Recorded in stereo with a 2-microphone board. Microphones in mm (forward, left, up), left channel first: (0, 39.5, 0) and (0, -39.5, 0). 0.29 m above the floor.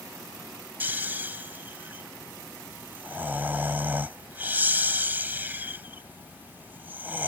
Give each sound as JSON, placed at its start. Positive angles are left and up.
{"t": 0.8, "sound": "snoring", "side_deg": -25}